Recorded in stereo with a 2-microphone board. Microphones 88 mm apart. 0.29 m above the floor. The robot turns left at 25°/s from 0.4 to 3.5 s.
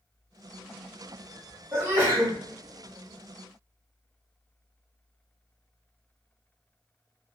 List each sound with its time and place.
1.7 s a sneeze: 25° right (ahead or behind), 1.4 m